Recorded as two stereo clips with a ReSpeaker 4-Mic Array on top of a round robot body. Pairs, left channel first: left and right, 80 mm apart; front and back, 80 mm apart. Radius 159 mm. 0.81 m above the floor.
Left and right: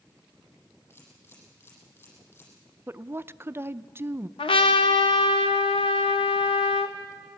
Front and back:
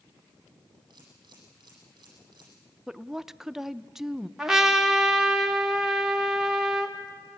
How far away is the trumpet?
About 0.9 m.